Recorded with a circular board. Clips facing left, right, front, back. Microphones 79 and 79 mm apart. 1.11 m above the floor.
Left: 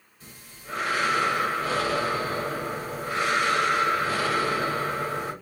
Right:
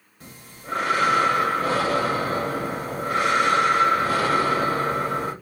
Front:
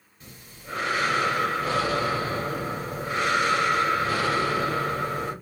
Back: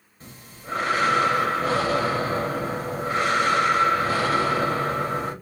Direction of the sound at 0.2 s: 125° right.